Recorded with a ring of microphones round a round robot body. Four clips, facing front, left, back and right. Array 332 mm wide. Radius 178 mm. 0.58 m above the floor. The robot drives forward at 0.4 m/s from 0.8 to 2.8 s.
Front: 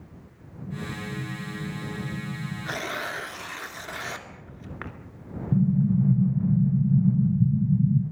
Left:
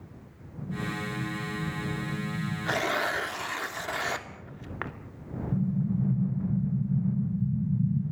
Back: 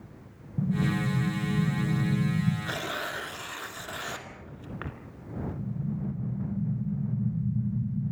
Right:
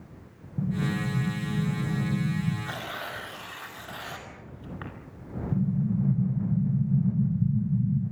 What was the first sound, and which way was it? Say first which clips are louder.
An explosion: right 5 dB, back 7 dB; 140° right.